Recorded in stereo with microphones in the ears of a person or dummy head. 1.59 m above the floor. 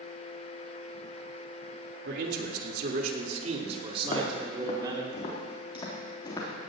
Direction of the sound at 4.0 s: 40° left (ahead or behind).